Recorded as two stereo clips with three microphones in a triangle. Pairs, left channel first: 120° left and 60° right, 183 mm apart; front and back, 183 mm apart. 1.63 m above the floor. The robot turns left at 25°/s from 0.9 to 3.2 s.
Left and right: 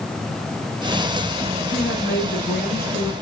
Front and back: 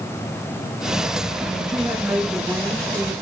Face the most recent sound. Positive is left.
turn(degrees=75)